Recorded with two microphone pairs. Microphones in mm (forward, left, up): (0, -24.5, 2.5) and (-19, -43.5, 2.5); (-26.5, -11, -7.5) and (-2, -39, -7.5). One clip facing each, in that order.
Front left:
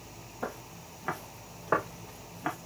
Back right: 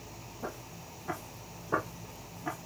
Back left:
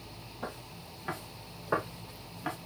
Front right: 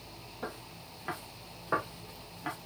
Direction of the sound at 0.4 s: 35° left.